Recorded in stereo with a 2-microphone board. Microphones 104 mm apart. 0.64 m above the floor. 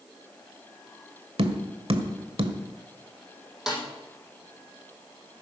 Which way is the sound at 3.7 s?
5° right (ahead or behind).